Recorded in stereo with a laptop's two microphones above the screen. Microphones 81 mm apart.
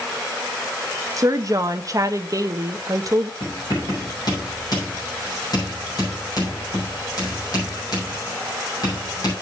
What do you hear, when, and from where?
1.2 s a woman speaking: 45° right (ahead or behind), 0.7 m
3.4 s writing: 50° left (ahead or behind), 7 m